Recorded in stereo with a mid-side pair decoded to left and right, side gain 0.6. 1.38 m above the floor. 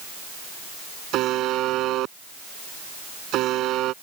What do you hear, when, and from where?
1.1 s a buzzer: 60° right